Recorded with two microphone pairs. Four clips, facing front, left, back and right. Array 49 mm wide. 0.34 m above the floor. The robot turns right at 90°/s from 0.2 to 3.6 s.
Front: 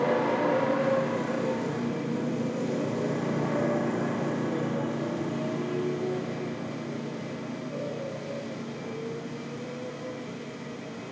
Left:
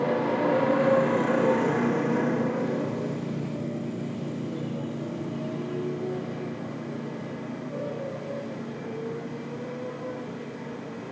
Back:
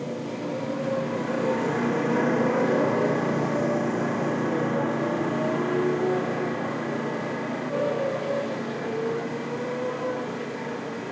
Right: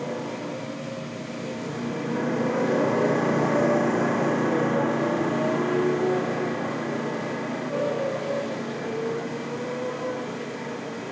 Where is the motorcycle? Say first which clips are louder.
Left 6 dB, front 6 dB; 25° left; by 11.1 s 155° right.